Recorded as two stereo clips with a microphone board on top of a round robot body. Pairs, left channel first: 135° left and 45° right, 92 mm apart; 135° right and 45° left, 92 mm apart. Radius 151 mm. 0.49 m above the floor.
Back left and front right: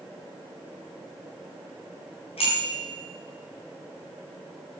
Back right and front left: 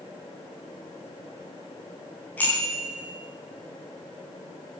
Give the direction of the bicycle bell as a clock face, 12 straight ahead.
7 o'clock.